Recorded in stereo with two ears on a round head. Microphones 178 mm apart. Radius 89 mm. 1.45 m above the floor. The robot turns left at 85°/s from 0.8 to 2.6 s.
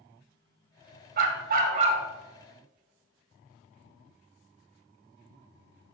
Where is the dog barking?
70° right, 1.5 m; by 2.0 s 145° right, 1.5 m.